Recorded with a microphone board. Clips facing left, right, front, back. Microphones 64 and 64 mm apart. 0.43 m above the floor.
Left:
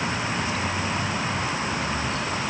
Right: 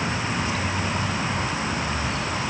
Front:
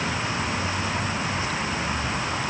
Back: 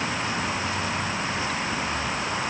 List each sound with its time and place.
Only background noise.